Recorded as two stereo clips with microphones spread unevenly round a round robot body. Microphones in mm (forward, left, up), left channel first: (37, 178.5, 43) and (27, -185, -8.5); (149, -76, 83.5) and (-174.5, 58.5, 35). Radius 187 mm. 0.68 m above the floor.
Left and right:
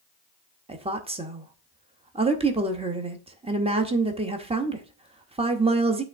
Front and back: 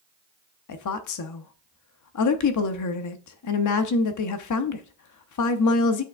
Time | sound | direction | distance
0.7 | a woman speaking | 35° right | 0.9 m